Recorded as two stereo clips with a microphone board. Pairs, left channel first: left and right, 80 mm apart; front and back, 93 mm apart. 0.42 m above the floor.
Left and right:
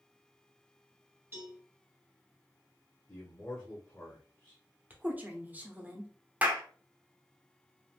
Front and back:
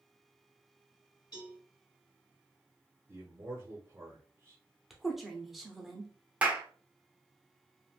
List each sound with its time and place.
1.3 s a cowbell: 30° right, 2 m
3.1 s a man speaking: 145° left, 1.0 m
4.9 s a woman speaking: 95° right, 0.7 m
6.4 s a clap: 130° right, 0.7 m